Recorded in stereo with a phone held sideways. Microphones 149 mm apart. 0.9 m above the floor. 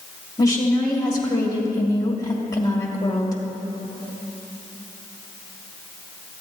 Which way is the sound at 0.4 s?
25° left (ahead or behind).